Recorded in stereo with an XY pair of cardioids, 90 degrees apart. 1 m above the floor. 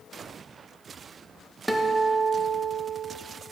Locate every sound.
1.7 s a guitar: straight ahead, 0.7 m